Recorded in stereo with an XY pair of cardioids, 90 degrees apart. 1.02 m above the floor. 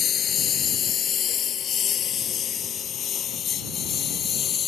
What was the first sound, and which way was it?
A lawn mower, 65° left.